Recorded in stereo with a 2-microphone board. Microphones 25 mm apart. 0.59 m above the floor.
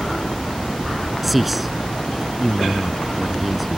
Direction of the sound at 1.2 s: Centre (ahead or behind).